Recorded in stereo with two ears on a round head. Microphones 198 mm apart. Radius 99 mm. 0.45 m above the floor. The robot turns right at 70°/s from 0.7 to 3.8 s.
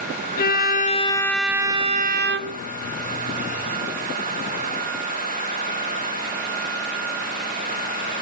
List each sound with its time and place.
0.4 s a violin: 130° left, 0.6 m; by 2.6 s 95° right, 0.6 m